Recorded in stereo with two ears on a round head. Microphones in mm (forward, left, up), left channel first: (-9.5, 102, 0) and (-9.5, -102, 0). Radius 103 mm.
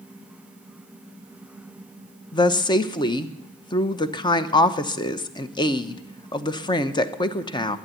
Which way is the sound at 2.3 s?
20° left (ahead or behind).